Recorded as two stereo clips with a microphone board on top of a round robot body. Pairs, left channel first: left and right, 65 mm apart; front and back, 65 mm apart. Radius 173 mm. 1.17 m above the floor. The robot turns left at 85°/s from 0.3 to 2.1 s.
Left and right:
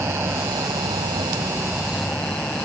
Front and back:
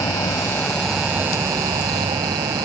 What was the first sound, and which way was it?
An insect, 35° right.